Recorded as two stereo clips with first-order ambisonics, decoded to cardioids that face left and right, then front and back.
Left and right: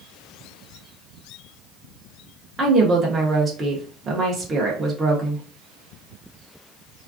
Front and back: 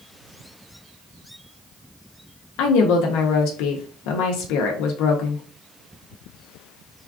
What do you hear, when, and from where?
2.6 s a woman speaking: 20° right, 0.5 m